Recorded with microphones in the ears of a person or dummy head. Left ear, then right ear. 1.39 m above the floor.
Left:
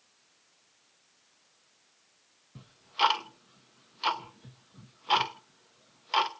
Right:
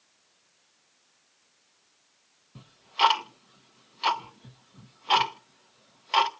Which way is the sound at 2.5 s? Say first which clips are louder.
Right 3 dB; 5° right (ahead or behind).